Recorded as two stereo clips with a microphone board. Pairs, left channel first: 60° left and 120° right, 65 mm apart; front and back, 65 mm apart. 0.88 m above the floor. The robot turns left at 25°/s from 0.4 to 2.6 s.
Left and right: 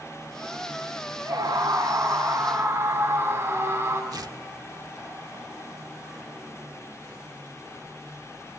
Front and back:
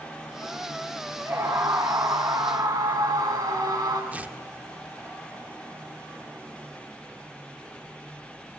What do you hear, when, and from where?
1.2 s a scream: 135° right, 8.5 m; by 4.0 s 170° right, 8.5 m
4.1 s tearing paper: 115° right, 1.0 m